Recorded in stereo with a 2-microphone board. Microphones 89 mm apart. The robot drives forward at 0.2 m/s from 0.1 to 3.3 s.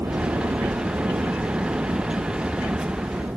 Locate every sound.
0.0 s a helicopter: 35° right (ahead or behind); by 3.4 s 20° right (ahead or behind)